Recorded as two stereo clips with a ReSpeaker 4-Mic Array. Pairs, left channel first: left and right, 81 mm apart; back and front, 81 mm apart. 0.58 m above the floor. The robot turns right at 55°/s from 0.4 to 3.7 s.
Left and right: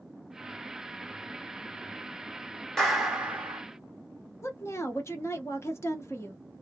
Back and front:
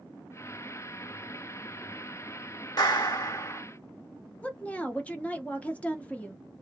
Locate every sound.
2.8 s a clap: 175° left, 1.3 m; by 3.6 s 140° right, 1.3 m
4.4 s a woman speaking: 120° left, 0.7 m